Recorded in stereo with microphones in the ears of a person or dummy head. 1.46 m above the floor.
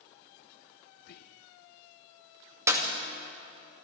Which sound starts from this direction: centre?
A clap, at 2.7 s.